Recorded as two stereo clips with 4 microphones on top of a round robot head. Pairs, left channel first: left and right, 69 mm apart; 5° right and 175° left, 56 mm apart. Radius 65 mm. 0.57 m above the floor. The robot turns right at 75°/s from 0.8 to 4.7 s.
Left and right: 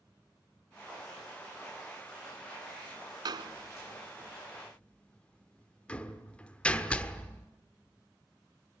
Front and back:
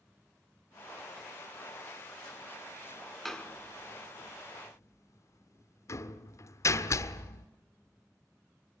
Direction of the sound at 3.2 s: 95° right.